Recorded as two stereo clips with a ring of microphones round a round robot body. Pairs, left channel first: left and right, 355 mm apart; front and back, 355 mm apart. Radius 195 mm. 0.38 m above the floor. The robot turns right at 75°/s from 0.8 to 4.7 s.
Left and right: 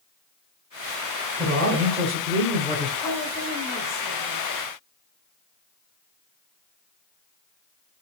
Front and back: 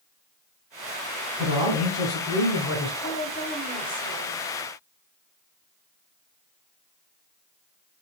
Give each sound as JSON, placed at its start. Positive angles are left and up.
{"t": 1.4, "sound": "a man speaking", "azimuth_deg": -140, "distance_m": 1.4}
{"t": 3.0, "sound": "a woman speaking", "azimuth_deg": 15, "distance_m": 1.0}